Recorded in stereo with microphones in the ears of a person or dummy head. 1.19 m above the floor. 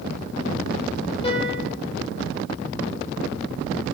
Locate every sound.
1.2 s a piano: 30° left (ahead or behind), 3 m